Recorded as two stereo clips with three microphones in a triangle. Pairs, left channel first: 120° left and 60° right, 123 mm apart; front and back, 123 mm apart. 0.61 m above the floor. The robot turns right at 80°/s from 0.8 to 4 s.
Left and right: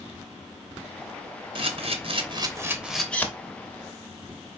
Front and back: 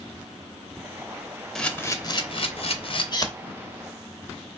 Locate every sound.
1.6 s a camera shutter: 85° right, 0.6 m; by 3.3 s 55° left, 0.6 m